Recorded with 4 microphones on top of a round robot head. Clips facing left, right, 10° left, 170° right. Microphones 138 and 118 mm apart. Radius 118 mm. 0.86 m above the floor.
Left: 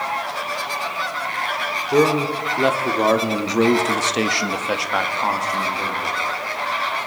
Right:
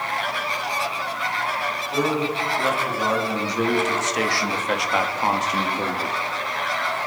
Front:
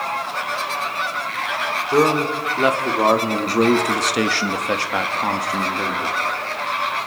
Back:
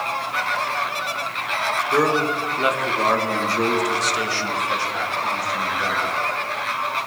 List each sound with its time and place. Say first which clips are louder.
1.9 s a man speaking: left 7 dB, front 3 dB; 80° left, 3.5 m; by 6.2 s 40° right, 3 m